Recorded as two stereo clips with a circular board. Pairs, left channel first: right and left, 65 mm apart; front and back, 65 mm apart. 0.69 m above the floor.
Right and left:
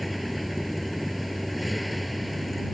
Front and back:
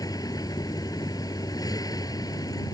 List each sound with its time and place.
0.0 s a vehicle: straight ahead